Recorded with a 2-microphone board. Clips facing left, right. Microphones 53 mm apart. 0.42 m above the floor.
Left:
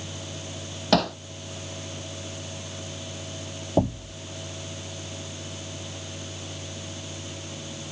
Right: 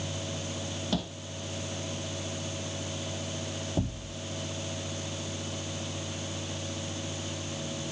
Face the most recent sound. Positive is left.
turn(degrees=60)  # may be behind; listen again after turning